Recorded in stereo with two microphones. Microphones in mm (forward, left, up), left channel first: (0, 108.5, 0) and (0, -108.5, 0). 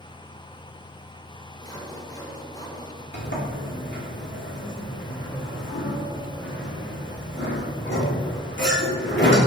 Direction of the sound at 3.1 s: 55° left (ahead or behind).